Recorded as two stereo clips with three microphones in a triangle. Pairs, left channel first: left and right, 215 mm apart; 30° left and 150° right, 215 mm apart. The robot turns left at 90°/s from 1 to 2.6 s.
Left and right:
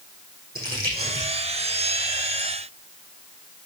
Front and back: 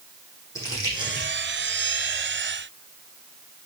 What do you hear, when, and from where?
0.6 s crumpling: 45° right, 6 m; by 1.3 s 75° right, 6 m